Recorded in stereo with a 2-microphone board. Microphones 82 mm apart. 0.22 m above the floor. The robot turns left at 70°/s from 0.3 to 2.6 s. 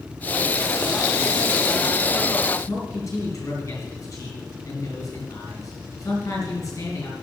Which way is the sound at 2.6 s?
45° left (ahead or behind).